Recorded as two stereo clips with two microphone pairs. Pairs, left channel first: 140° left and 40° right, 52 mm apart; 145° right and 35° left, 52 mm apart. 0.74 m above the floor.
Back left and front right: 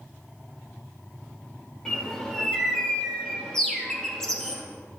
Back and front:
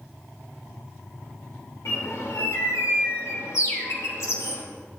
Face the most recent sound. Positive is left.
turn(degrees=-140)